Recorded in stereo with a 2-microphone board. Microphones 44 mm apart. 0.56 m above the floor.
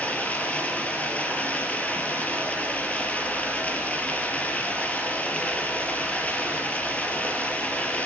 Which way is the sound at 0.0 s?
35° left (ahead or behind).